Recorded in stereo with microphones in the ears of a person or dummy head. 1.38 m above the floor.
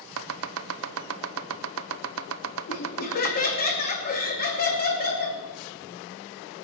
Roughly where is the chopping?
Right.